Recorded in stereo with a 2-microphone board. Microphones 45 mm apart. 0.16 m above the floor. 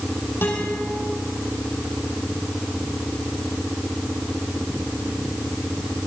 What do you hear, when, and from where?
0.4 s a guitar: 60° left (ahead or behind), 6.5 m